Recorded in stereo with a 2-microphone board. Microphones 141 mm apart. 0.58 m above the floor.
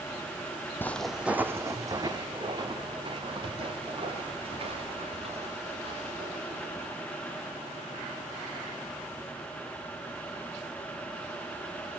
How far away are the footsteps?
About 1.1 m.